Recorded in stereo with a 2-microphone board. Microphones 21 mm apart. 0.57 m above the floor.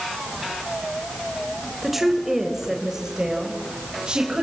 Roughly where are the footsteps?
No footsteps in this recording.